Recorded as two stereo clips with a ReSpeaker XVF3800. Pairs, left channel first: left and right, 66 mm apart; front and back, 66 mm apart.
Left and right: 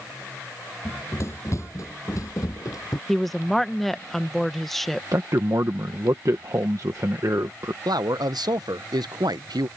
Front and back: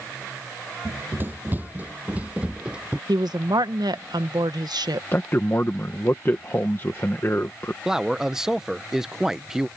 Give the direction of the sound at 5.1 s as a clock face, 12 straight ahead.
2 o'clock.